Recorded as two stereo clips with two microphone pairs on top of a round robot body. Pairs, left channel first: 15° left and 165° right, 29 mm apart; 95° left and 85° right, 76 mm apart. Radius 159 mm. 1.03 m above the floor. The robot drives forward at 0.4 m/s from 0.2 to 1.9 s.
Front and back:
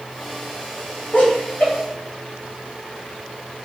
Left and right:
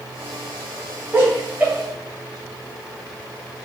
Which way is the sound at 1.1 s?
15° right.